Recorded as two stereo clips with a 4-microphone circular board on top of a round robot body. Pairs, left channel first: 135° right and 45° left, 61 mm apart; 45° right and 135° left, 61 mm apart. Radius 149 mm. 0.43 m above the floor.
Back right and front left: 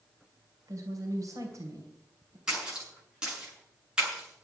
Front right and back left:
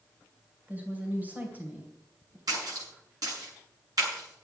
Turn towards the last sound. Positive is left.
turn(degrees=120)